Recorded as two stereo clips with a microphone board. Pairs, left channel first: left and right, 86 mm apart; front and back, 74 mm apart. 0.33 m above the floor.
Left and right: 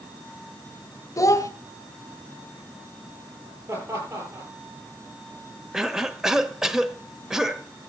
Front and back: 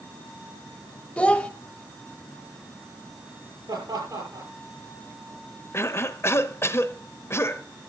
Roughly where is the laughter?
Behind right.